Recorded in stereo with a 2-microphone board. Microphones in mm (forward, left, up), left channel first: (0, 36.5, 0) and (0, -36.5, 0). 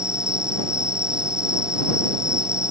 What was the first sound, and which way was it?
An insect, 10° right (ahead or behind).